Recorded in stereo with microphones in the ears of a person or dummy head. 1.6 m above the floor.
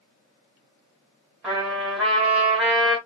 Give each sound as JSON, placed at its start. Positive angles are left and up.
{"t": 1.4, "sound": "a trumpet", "side_deg": -5, "distance_m": 1.8}